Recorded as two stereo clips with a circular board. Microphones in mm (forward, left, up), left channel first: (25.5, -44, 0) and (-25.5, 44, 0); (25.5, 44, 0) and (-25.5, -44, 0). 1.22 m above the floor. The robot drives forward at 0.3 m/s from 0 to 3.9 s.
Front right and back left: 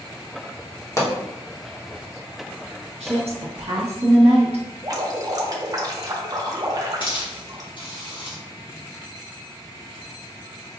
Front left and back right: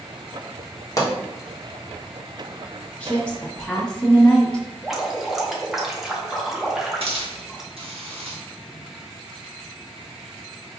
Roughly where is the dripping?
Behind left.